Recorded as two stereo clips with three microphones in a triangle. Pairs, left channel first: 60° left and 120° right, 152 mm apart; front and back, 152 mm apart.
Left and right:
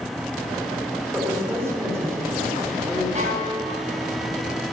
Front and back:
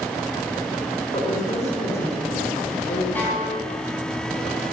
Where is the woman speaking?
45° right, 3.5 m.